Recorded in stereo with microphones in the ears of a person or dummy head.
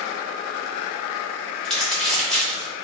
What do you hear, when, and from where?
1.6 s crumpling: 5° left (ahead or behind), 1.1 m